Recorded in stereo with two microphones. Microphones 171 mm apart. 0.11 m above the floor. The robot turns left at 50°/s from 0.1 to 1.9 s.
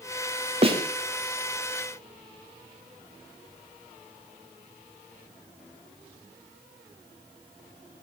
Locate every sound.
0.6 s a snare drum: 40° right (ahead or behind), 4.5 m; by 0.8 s 30° right (ahead or behind), 4.5 m